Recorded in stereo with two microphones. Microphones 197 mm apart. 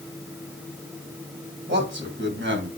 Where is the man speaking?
75° right (ahead or behind), 3.5 m; by 2.7 s 80° right, 3.5 m.